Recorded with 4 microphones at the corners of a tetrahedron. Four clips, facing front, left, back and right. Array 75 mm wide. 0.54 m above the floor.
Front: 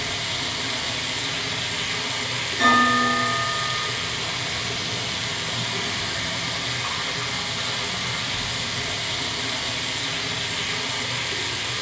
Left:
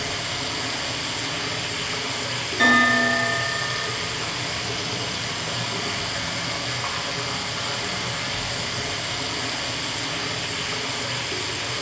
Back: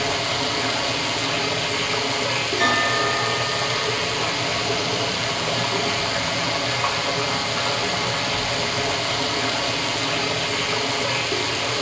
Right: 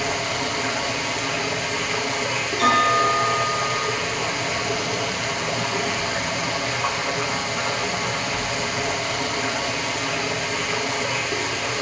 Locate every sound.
0.0 s running water: 165° right, 2 m
2.6 s a bell: 100° left, 8.5 m